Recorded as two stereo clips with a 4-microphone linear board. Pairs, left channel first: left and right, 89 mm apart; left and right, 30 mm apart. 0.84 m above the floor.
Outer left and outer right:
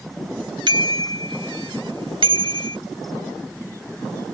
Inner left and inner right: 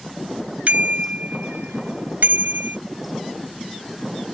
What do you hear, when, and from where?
0.7 s a bicycle bell: 55° right (ahead or behind); by 2.8 s 75° right (ahead or behind)